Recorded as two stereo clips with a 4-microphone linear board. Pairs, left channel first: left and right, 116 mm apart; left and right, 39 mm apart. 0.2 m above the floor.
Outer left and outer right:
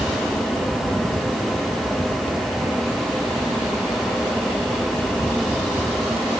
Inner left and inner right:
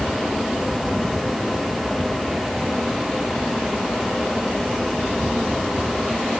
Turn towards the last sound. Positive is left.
No sound to turn to.